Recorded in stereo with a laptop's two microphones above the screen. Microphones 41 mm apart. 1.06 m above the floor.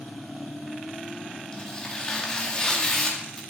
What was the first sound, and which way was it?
Tearing paper, 20° left (ahead or behind).